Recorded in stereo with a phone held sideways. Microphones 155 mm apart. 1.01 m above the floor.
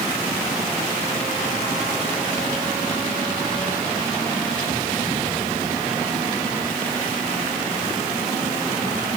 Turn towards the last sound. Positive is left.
No sound to turn to.